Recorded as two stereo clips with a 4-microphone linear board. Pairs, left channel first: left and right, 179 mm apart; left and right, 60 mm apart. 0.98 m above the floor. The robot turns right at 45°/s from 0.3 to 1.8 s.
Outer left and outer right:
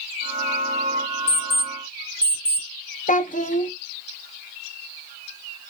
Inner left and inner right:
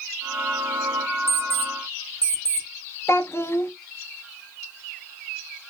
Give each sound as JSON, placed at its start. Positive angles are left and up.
{"t": 1.3, "sound": "an alarm clock", "side_deg": 50, "distance_m": 2.0}
{"t": 3.1, "sound": "a child speaking", "side_deg": 45, "distance_m": 0.5}